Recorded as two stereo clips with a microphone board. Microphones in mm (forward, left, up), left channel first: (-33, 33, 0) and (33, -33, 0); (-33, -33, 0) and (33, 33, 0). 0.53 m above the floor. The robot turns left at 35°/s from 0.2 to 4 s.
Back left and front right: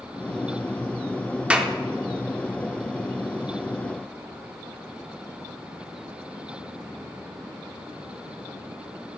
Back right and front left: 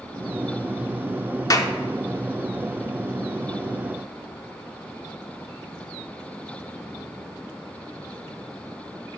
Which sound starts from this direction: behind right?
A clap, at 1.5 s.